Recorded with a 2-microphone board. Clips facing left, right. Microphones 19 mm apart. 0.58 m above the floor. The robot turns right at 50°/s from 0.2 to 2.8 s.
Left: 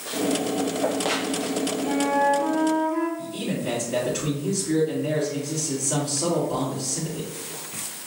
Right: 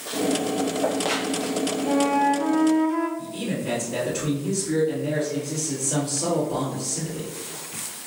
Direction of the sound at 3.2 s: 15° left (ahead or behind).